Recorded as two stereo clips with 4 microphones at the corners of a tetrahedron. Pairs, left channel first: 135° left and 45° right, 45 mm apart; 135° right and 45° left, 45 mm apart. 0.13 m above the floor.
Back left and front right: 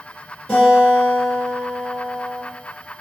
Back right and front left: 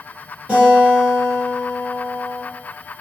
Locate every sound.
0.5 s a guitar: 50° left, 1.8 m